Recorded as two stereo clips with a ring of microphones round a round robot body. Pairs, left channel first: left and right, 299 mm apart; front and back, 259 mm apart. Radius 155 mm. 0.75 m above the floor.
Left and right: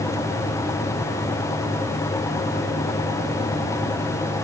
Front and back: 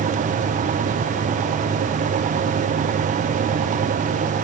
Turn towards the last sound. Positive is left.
No sound to turn to.